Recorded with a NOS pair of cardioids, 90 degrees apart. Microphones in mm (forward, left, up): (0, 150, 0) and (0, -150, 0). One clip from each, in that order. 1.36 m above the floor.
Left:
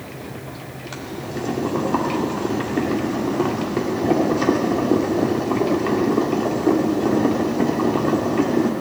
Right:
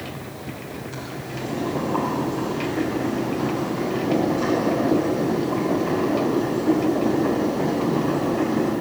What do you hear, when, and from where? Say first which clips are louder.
0.9 s boiling: left 6 dB; 70° left, 2.5 m